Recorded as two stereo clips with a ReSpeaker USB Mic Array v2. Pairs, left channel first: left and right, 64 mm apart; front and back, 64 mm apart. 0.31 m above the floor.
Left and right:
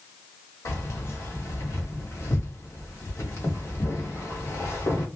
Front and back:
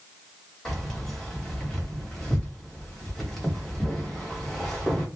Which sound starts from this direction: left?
Keys jangling, at 0.7 s.